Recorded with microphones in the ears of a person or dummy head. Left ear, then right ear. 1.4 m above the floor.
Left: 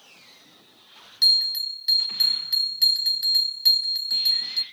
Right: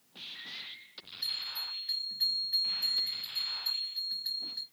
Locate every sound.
1.2 s a bell: 75° left (ahead or behind), 0.6 m